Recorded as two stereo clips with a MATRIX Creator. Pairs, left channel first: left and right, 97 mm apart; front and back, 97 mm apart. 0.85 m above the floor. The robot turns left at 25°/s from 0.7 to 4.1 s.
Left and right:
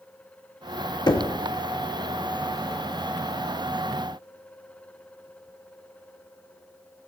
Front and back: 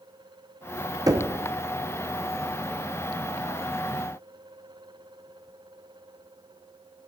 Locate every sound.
1.1 s knocking: 130° left, 0.8 m; by 1.3 s 125° left, 0.8 m